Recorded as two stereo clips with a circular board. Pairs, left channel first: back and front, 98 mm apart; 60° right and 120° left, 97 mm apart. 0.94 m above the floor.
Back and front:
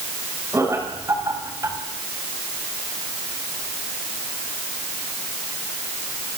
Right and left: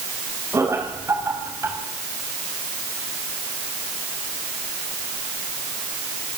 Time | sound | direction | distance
0.5 | laughter | 60° left | 6 m